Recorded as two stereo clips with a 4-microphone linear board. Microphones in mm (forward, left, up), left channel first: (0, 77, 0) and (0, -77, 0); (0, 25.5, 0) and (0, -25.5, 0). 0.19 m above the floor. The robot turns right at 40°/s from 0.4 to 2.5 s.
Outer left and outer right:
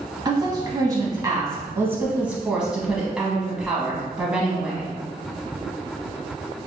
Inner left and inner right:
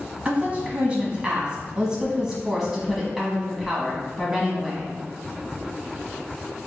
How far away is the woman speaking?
About 1.1 m.